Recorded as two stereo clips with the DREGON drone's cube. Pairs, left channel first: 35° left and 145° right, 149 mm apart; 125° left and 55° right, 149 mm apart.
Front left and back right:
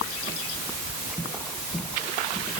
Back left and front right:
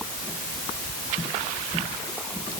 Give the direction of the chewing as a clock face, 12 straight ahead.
I don't hear chewing.